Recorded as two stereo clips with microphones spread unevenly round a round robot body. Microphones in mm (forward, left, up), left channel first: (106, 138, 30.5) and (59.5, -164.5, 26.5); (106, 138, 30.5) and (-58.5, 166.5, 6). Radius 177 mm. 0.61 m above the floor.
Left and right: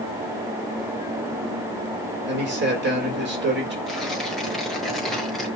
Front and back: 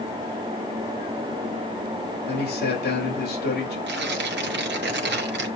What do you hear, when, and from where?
2.3 s a man speaking: 45° right, 3.5 m
3.9 s tearing paper: 170° left, 1.2 m